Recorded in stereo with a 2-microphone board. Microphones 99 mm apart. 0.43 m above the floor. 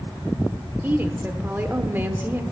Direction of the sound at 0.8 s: 20° right (ahead or behind).